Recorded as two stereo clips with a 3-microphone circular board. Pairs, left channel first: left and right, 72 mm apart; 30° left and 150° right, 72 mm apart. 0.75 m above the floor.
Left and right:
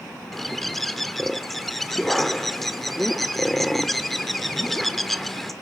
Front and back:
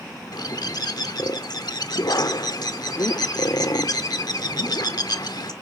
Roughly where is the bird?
Ahead.